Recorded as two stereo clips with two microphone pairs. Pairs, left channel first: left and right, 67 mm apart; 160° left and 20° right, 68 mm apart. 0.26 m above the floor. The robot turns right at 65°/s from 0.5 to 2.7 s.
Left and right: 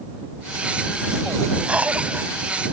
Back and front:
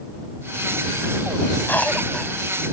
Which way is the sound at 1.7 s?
155° right.